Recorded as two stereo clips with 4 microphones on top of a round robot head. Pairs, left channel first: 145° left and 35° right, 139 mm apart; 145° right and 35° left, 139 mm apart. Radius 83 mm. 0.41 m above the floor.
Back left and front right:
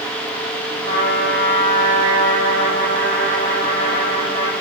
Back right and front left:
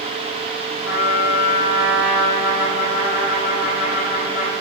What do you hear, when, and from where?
0.8 s a trumpet: 150° right, 4 m